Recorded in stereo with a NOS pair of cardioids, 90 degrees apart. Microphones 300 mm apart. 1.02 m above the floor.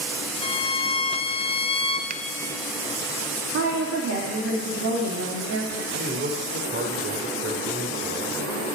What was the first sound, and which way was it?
A violin, 20° left.